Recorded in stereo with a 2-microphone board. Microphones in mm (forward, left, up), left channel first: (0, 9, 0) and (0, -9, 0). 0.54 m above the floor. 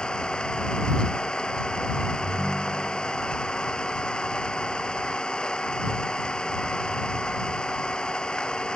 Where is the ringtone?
10° left (ahead or behind).